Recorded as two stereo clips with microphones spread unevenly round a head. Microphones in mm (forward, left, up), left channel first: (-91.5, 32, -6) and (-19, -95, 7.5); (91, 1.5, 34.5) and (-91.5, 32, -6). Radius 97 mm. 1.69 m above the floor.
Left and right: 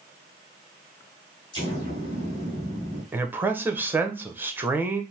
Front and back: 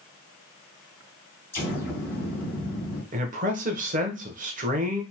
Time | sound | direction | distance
1.5 | an explosion | 55° left | 2.5 m
3.1 | a man speaking | 135° right | 1.0 m